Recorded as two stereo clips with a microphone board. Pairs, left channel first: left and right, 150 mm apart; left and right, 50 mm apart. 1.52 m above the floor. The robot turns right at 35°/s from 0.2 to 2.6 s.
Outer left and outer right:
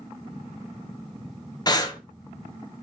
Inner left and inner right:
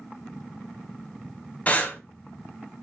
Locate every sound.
1.7 s breathing: 25° left (ahead or behind), 0.6 m